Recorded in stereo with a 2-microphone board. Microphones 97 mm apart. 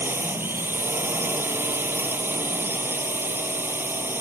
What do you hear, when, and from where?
0.0 s a drone: 25° right (ahead or behind)